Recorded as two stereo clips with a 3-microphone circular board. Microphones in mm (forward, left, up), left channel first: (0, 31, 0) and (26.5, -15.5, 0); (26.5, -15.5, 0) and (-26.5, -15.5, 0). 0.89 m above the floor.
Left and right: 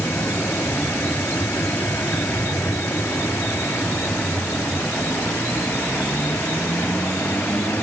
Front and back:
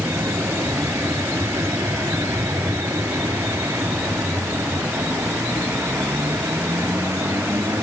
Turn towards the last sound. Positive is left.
turn(degrees=165)